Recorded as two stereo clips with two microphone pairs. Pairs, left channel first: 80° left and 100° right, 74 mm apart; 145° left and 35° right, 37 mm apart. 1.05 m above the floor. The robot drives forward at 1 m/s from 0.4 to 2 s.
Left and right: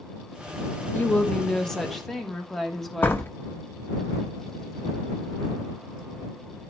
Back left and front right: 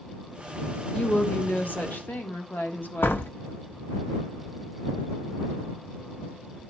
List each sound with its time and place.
0.9 s a woman speaking: 125° left, 0.6 m; by 3.2 s 165° left, 1.4 m
3.0 s a door slam: 140° left, 0.8 m